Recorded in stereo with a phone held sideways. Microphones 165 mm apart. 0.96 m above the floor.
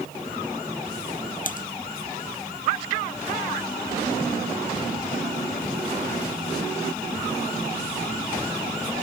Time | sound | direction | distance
1.4 | typing on a keyboard | 55° left (ahead or behind) | ?